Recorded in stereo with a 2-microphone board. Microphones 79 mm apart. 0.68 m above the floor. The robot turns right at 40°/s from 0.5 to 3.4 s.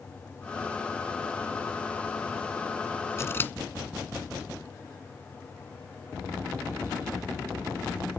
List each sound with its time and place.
3.2 s scissors: 35° left (ahead or behind); by 3.5 s 25° left (ahead or behind)